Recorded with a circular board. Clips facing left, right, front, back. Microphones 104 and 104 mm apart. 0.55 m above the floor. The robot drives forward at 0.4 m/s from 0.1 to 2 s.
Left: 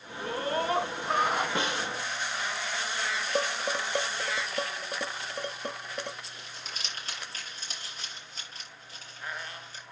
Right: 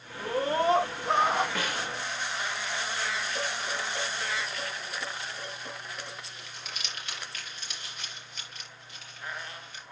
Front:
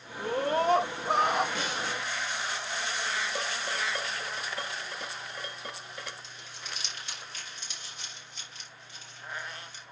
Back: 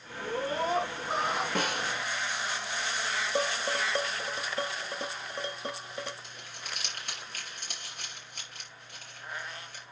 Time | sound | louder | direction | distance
0.2 | a scream | right 3 dB, front 4 dB | 20° right | 4.5 m
1.6 | a snare drum | left 2 dB, back 2 dB | 155° left | 1.6 m
3.4 | dishes clattering | left 4 dB, back 4 dB | 115° left | 1.5 m
6.2 | crumpling | even, back 1 dB | 145° left | 4.5 m